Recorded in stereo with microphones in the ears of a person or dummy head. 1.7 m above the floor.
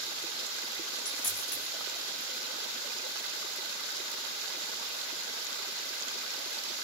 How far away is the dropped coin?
About 4.5 m.